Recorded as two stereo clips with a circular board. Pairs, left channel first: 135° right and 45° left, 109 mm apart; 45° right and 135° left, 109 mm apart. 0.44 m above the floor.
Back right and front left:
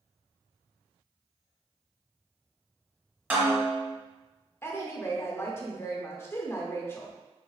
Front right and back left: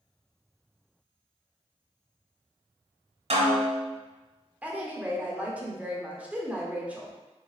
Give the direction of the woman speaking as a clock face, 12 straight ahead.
6 o'clock.